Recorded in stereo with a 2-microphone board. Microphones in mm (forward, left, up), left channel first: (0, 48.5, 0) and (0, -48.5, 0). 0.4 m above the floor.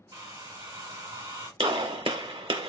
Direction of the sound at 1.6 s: 60° right (ahead or behind).